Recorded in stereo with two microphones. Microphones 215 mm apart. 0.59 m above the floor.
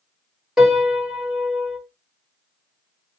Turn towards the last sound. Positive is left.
turn(degrees=-5)  # may be behind; listen again after turning